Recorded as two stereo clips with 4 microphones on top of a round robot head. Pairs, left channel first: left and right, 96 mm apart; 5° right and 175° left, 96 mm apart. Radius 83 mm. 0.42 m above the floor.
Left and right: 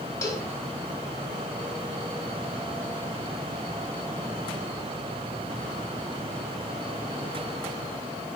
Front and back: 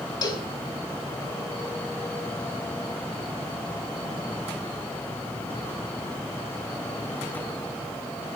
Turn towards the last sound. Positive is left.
turn(degrees=30)